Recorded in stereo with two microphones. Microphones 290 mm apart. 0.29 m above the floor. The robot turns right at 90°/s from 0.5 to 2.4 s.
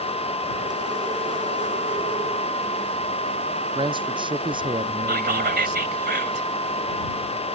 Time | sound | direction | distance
3.8 | a man speaking | 15° right (ahead or behind) | ?
5.1 | whispering | 35° right (ahead or behind) | ?